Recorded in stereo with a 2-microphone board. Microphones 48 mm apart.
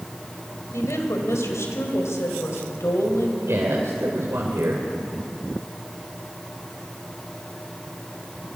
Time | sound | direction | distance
0.7 | a woman speaking | 75° left (ahead or behind) | 5 m
3.4 | a man speaking | 70° right (ahead or behind) | 3.5 m